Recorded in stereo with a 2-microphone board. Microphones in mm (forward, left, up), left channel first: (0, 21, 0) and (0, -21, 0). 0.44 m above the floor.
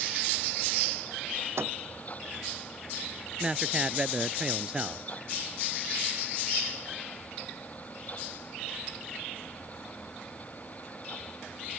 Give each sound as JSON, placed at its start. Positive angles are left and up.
{"t": 1.6, "sound": "a microwave", "side_deg": -80}
{"t": 3.4, "sound": "a man speaking", "side_deg": -20}